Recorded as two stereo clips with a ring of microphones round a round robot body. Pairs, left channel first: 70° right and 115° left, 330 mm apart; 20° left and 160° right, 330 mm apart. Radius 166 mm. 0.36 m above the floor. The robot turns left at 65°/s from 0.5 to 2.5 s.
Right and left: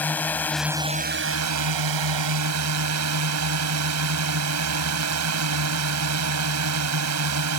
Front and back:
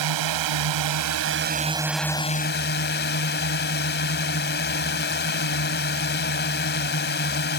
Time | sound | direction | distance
0.0 | a drone | 150° right | ?